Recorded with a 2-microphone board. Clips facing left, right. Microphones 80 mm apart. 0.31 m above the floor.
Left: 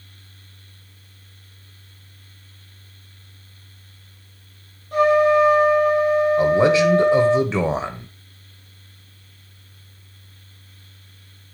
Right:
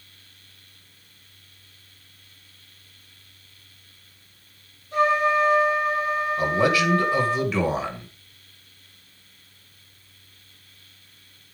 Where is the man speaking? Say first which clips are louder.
Left 3 dB; 25° left (ahead or behind), 1.5 m.